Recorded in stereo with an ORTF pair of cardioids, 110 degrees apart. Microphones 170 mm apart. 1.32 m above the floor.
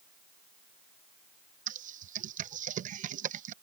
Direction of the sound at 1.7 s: 50° right.